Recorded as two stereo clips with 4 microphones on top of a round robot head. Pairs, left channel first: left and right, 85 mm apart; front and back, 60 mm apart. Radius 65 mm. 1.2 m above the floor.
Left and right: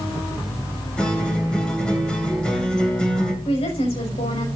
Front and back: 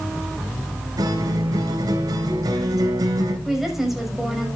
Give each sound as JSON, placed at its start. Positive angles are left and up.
{"t": 1.0, "sound": "a guitar", "azimuth_deg": 170, "distance_m": 3.5}
{"t": 3.5, "sound": "a woman speaking", "azimuth_deg": 95, "distance_m": 6.0}